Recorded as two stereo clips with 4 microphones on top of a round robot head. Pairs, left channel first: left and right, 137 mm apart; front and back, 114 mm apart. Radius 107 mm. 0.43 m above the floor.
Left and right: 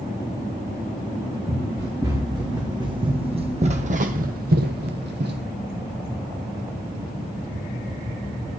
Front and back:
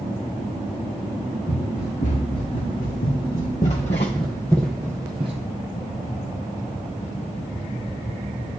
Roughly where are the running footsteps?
Ahead.